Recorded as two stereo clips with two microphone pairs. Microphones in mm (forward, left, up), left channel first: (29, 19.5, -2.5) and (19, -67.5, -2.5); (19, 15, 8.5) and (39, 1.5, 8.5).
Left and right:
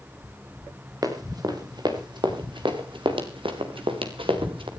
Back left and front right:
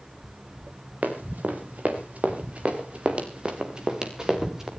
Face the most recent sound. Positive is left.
turn(degrees=-110)